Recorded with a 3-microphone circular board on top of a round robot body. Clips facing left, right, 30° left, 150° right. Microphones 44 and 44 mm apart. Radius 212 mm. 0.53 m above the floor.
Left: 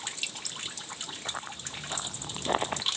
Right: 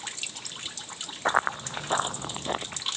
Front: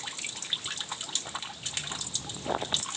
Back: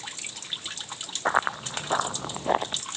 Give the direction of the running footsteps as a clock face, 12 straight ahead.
4 o'clock.